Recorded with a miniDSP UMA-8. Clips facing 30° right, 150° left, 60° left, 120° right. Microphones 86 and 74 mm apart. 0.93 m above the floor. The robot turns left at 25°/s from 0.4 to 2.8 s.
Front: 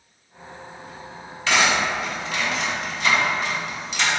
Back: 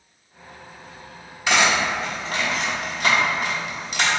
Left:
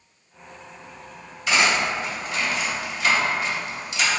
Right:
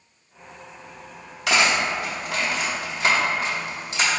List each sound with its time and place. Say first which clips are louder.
1.5 s cutlery clinking: back 1 dB, even; 140° right, 1.0 m; by 4.1 s 170° right, 1.0 m